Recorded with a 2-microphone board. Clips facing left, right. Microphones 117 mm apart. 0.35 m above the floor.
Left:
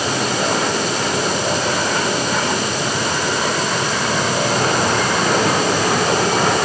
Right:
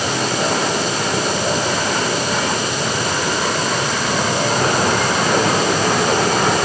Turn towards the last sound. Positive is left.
No sound to turn to.